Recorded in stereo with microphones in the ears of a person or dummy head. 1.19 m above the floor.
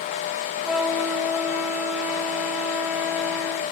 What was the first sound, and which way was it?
A flute, 5° left (ahead or behind).